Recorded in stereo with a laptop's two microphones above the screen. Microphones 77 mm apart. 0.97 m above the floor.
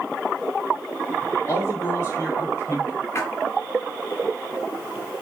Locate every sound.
1.5 s a man speaking: 35° left (ahead or behind), 2 m
3.1 s a splash: 35° left (ahead or behind), 0.8 m